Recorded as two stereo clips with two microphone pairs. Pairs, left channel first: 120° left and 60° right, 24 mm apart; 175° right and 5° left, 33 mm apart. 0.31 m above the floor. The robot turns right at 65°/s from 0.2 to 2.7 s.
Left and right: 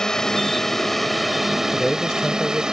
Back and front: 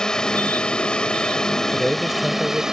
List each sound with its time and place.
0.0 s a drone: 145° left; by 2.7 s 55° right
1.7 s a man speaking: 45° left; by 2.6 s 105° left